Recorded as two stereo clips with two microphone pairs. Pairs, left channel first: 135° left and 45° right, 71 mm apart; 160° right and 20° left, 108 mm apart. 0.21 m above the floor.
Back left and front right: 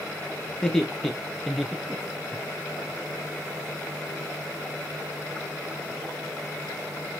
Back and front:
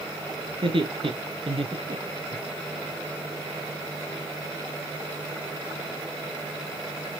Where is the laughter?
55° left, 3.5 m; by 2.4 s 30° left, 1.9 m.